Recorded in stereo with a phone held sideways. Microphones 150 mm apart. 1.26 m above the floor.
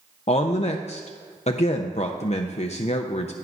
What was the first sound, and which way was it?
A woman speaking, 50° left (ahead or behind).